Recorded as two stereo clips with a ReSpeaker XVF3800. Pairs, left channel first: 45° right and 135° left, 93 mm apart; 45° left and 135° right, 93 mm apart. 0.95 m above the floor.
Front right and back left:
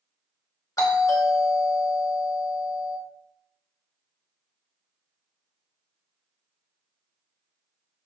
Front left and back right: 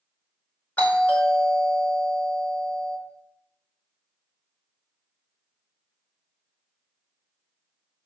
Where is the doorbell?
15° right, 1.1 m.